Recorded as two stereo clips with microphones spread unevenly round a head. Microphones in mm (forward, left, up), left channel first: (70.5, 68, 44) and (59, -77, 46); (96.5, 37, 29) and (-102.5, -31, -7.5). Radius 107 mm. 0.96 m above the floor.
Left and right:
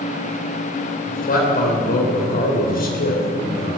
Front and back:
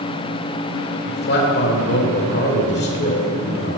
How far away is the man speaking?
About 3.5 m.